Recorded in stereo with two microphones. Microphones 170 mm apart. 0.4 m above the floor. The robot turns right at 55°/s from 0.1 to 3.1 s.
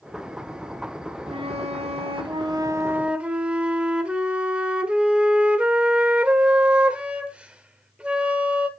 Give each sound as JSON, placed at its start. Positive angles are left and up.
{"t": 1.3, "sound": "a flute", "azimuth_deg": -110, "distance_m": 1.2}